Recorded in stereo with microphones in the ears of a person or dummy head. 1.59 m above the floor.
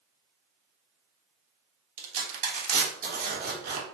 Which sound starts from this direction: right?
Tearing paper, at 2.0 s.